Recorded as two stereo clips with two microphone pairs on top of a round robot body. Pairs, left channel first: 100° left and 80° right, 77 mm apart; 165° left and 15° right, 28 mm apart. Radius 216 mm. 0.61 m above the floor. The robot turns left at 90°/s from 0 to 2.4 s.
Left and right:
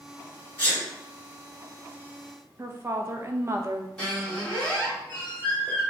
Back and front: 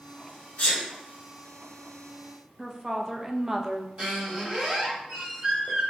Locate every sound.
0.6 s a sneeze: 160° left, 1.7 m; by 0.8 s 140° left, 1.7 m
2.6 s a woman speaking: 90° right, 0.9 m
4.0 s a squeak: 30° left, 1.9 m